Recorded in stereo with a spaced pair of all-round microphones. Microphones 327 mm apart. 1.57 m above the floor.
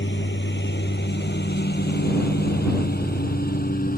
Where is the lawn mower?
35° left (ahead or behind); by 4.0 s 25° left (ahead or behind).